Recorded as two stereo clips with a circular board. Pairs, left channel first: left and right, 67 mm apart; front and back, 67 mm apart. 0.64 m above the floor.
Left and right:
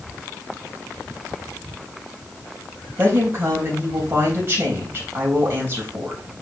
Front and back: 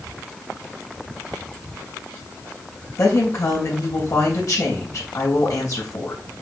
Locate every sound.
3.0 s a woman speaking: 35° right, 3.5 m